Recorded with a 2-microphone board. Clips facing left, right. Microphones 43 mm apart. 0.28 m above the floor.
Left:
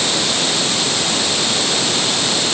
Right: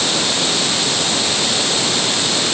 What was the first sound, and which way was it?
Only background noise.